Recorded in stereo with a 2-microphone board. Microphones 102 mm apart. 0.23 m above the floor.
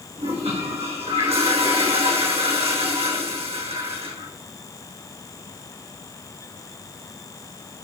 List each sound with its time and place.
0.2 s a toilet flushing: 85° right, 5.5 m